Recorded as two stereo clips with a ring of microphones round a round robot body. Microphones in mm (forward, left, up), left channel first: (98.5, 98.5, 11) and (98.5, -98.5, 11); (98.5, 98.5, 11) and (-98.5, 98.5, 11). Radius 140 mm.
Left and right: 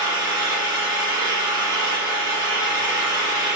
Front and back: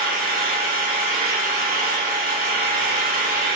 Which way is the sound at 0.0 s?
140° left.